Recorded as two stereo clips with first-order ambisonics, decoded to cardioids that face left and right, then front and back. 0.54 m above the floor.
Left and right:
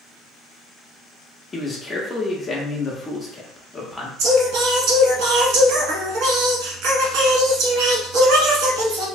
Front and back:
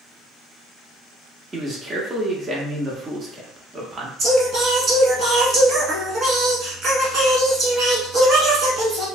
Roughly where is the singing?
Behind right.